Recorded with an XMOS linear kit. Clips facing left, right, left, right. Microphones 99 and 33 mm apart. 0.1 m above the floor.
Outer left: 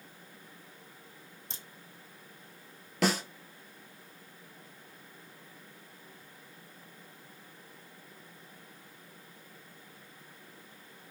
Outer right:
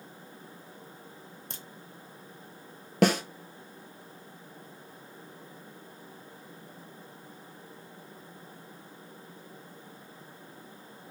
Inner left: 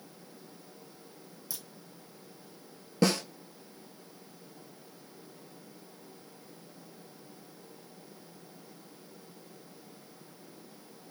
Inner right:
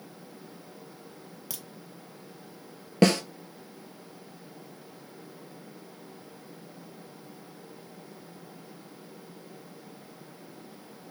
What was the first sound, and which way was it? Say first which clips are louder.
A crack: outer right 2 dB, inner right 2 dB; 60° right (ahead or behind).